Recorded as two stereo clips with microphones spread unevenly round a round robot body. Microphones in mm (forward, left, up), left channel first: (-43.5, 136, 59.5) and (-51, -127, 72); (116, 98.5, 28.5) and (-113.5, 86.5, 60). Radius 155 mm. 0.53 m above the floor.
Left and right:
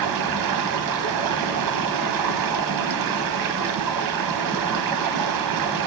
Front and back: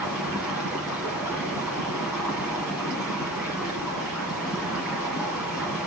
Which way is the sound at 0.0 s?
90° right.